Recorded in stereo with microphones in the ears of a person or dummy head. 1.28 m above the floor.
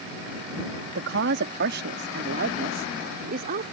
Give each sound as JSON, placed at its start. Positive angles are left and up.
{"t": 0.9, "sound": "a woman speaking", "side_deg": -70}